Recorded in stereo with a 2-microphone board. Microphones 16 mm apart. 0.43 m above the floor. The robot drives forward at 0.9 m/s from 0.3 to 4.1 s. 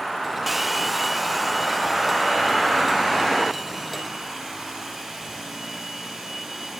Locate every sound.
0.5 s a hair dryer: 10° right (ahead or behind), 0.6 m; by 6.8 s centre (ahead or behind), 3.5 m